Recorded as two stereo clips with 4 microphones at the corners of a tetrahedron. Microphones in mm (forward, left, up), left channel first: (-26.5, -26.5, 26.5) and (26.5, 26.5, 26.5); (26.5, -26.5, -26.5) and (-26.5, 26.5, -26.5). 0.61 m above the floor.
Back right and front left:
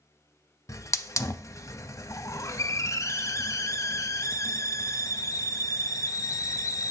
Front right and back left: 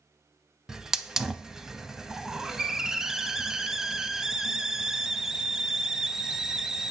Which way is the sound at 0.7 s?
145° right.